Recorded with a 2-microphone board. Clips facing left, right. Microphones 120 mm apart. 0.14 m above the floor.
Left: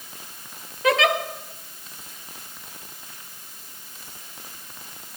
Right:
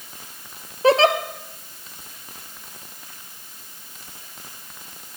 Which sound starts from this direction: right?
A giggle, at 0.8 s.